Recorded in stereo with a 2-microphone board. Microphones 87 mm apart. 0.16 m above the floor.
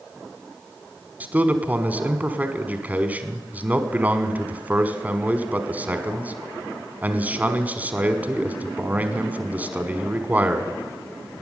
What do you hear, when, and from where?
1.2 s a man speaking: 20° right (ahead or behind), 1.0 m